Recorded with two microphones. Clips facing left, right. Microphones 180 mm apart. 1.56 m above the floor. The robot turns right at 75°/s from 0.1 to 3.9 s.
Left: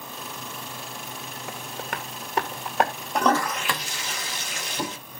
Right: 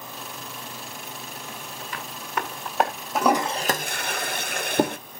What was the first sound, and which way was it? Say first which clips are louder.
Tapping: left 6 dB; 80° left.